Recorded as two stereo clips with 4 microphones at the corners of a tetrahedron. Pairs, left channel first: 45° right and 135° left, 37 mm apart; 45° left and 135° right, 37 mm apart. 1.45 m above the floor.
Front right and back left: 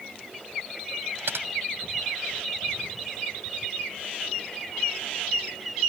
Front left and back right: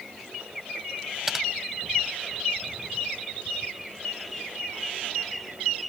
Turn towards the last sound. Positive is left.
turn(degrees=145)